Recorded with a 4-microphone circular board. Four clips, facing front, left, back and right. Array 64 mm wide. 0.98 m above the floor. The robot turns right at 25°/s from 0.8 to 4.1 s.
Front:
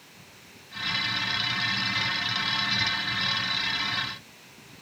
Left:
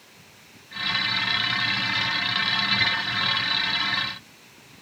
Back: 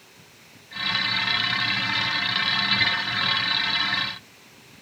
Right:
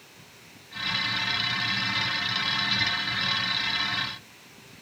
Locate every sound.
Only background noise.